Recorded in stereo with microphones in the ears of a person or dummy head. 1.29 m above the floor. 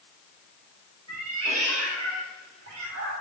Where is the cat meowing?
80° right, 3.5 m.